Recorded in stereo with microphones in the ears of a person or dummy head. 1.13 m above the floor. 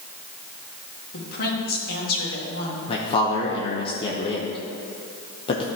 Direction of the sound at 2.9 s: 30° left (ahead or behind).